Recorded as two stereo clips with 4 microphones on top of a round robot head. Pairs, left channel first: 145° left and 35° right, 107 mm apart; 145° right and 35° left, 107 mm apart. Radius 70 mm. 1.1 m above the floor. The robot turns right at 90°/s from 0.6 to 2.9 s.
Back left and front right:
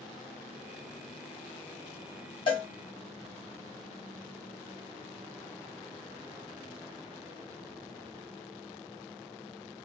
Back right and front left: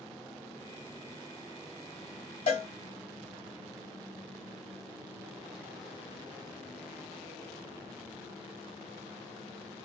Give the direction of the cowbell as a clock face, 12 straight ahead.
6 o'clock.